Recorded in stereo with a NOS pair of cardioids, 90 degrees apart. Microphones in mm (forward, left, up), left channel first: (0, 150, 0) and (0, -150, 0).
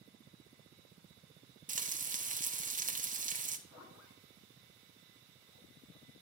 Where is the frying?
25° right, 0.8 m.